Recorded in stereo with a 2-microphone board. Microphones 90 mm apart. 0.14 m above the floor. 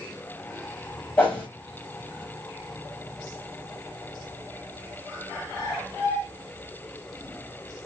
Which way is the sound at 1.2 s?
20° left (ahead or behind).